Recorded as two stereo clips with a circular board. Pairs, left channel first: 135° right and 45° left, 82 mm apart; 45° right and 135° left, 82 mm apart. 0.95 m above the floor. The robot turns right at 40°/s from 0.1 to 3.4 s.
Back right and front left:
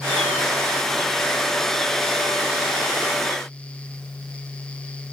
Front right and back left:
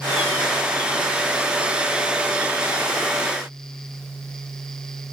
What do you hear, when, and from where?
Only background noise.